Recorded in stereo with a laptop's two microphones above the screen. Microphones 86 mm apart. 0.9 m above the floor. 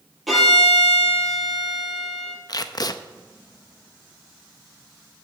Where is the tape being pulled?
50° left (ahead or behind), 0.6 m.